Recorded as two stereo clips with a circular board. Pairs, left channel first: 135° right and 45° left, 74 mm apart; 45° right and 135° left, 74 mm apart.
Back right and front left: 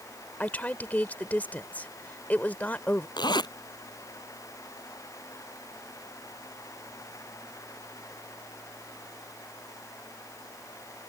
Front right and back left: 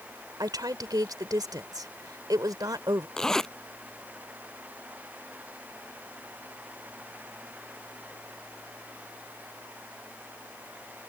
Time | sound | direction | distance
0.4 | a woman speaking | 160° left | ?
3.2 | a zipper | 125° right | ?